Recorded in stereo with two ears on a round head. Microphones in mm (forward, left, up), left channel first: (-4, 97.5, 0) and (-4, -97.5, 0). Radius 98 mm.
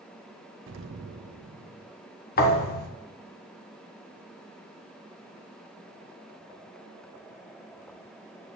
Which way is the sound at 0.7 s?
60° right (ahead or behind).